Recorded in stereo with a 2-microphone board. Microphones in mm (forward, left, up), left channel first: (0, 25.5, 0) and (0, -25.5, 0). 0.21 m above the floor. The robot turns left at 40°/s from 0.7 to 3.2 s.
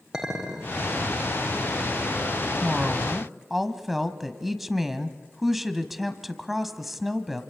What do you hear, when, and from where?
0.1 s a clink: 10° right (ahead or behind), 6 m; by 0.8 s 15° right (ahead or behind), 6 m
2.6 s a woman speaking: 10° right (ahead or behind), 1.4 m; by 7.4 s 5° right (ahead or behind), 1.4 m